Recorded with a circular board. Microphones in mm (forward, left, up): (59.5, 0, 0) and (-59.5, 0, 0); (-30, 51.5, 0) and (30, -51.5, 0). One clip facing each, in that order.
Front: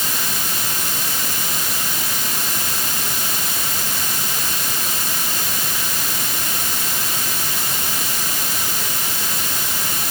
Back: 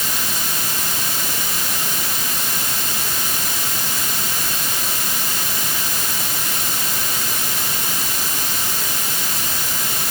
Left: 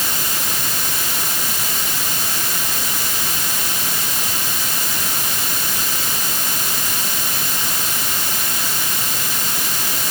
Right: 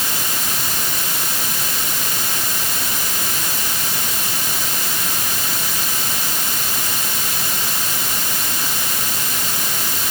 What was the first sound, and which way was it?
Only background noise.